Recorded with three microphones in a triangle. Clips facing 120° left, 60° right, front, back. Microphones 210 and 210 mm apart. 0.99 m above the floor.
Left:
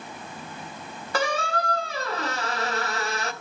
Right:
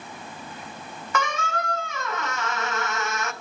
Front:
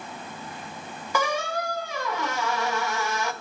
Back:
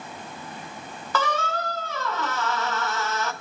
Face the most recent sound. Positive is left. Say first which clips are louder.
# left 2 dB, even
turn(degrees=70)